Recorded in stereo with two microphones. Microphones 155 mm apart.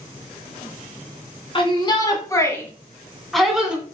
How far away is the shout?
About 2.5 m.